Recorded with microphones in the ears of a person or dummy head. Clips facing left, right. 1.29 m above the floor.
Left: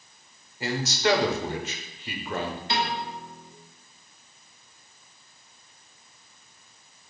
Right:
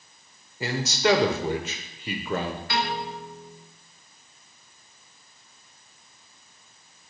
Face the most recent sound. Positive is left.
turn(degrees=20)  # may be behind; listen again after turning